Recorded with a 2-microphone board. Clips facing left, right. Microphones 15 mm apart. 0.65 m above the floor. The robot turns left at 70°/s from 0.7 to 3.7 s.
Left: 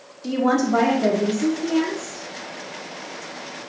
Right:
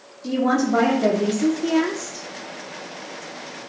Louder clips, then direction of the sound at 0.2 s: Even; 20° left.